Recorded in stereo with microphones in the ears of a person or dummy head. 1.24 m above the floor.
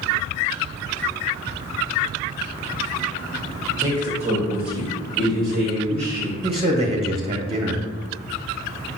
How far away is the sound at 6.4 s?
About 0.6 m.